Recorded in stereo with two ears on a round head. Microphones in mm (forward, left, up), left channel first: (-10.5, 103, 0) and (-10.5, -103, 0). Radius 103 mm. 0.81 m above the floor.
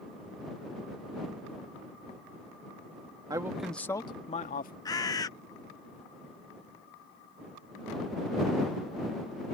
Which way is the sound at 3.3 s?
15° right (ahead or behind).